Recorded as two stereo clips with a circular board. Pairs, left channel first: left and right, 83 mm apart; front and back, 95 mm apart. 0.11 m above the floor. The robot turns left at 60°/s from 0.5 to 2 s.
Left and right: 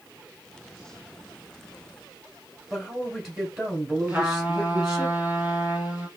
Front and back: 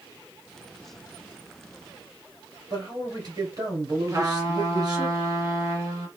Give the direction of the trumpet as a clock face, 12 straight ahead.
5 o'clock.